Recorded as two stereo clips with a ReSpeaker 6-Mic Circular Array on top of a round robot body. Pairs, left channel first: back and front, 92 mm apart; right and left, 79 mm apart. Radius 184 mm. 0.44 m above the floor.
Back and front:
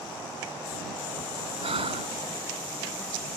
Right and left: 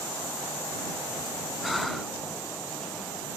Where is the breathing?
Straight ahead.